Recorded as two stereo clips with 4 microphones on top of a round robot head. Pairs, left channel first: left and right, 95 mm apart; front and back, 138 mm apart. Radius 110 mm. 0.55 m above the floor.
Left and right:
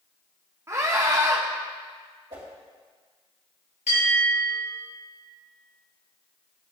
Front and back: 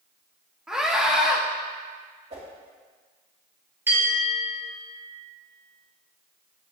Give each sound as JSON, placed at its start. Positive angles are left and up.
{"t": 0.7, "sound": "a scream", "azimuth_deg": -100, "distance_m": 1.0}
{"t": 2.3, "sound": "a whoosh", "azimuth_deg": -135, "distance_m": 2.5}
{"t": 3.9, "sound": "a bell", "azimuth_deg": 105, "distance_m": 4.0}